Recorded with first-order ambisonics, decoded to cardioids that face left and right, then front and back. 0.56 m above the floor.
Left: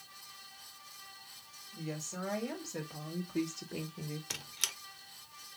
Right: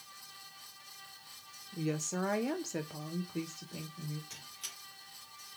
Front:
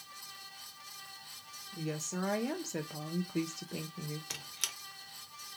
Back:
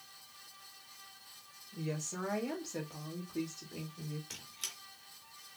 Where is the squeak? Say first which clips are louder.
Left 8 dB, front 7 dB; 60° left, 0.7 m.